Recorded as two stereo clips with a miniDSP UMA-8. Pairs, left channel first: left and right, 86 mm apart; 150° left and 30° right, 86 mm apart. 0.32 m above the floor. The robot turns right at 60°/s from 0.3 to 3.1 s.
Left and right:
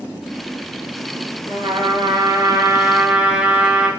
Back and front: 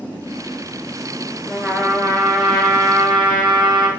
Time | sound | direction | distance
1.5 | a trumpet | 110° right | 2.0 m